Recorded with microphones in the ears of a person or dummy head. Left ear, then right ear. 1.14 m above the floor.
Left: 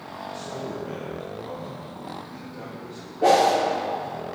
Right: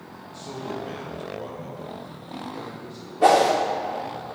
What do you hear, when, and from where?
0.3 s a man speaking: 5° right (ahead or behind), 1.1 m; by 3.1 s 25° right (ahead or behind), 2.5 m
3.2 s a whoosh: 20° right (ahead or behind), 0.8 m